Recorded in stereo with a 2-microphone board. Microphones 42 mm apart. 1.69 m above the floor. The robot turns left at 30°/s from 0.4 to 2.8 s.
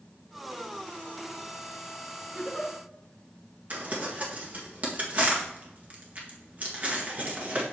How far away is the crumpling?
About 1.6 m.